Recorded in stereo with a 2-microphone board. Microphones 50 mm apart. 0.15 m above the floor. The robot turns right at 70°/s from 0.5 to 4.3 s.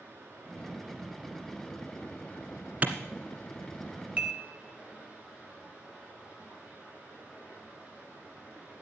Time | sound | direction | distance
0.0 | running water | 70° right | 6 m
2.8 | a clap | 35° right (ahead or behind) | 1.5 m
4.2 | dishes clattering | 30° right (ahead or behind) | 1.8 m